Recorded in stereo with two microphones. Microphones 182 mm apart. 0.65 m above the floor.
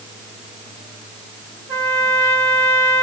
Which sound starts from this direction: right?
A trumpet, at 1.7 s.